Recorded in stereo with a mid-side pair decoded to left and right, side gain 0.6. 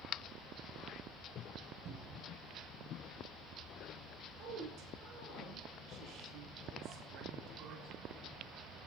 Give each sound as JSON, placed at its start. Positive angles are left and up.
{"t": 1.9, "sound": "a cupboard door", "azimuth_deg": -70, "distance_m": 6.0}
{"t": 4.4, "sound": "a woman speaking", "azimuth_deg": -70, "distance_m": 6.5}